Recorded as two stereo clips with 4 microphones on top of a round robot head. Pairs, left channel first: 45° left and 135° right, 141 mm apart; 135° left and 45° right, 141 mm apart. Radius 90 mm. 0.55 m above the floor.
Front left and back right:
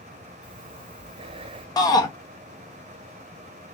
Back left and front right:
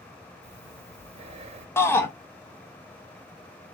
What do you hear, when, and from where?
0.4 s breathing: 85° right, 0.8 m
1.8 s a shout: 75° left, 0.8 m